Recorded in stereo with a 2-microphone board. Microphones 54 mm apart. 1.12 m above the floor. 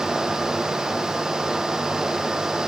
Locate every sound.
Only background noise.